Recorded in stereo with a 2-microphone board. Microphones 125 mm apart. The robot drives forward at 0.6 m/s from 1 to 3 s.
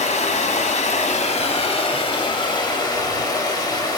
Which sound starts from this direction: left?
Running water, at 0.0 s.